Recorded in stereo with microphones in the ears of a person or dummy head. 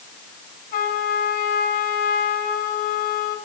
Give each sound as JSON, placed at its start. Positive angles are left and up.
{"t": 0.7, "sound": "a trumpet", "side_deg": 50, "distance_m": 4.5}